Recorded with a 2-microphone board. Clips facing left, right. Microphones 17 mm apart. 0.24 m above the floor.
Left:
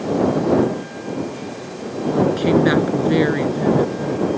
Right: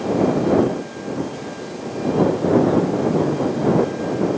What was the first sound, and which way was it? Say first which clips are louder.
A woman speaking: even; 70° left (ahead or behind).